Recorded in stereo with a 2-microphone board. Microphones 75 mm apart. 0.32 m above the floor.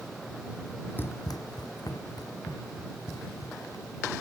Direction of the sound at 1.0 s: 30° left (ahead or behind).